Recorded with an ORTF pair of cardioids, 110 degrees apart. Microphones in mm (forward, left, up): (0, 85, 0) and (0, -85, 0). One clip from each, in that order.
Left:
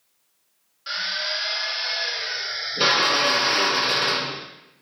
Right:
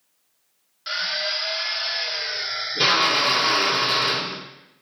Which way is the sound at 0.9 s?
30° right.